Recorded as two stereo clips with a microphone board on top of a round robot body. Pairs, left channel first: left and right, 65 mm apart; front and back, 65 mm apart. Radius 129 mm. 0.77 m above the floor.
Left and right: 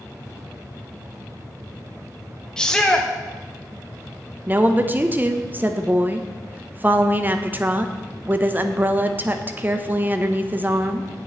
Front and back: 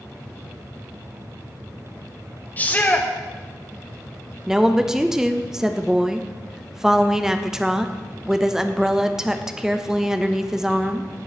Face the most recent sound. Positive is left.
turn(degrees=-105)